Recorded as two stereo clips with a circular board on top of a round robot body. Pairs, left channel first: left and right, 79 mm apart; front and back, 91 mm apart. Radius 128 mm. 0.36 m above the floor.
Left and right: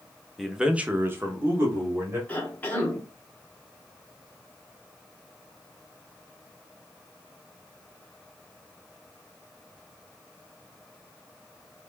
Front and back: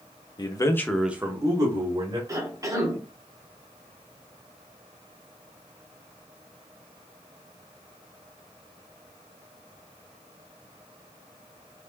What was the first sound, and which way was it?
A man speaking, straight ahead.